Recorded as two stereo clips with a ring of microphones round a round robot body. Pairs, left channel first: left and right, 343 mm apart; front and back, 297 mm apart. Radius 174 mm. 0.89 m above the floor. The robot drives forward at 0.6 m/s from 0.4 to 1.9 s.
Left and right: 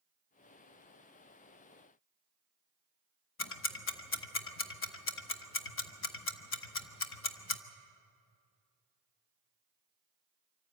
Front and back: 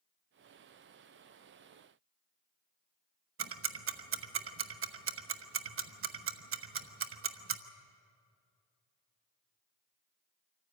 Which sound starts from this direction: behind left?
Ticking, at 3.4 s.